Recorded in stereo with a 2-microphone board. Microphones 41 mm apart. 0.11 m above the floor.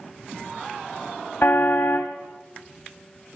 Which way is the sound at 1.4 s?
60° left (ahead or behind).